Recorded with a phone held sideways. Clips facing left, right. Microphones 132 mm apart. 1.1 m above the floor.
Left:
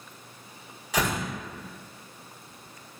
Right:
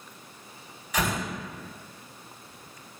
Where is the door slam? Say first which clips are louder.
Left 1 dB; 80° left, 1.9 m.